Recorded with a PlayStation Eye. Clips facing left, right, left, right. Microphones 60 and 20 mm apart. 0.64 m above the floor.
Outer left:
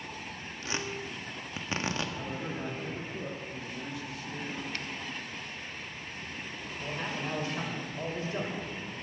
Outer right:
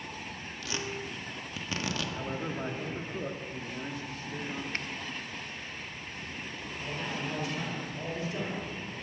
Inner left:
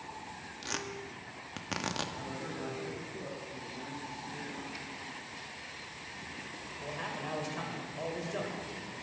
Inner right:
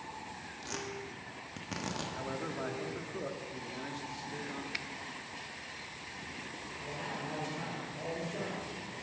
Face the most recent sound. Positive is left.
turn(degrees=35)  # may be behind; listen again after turning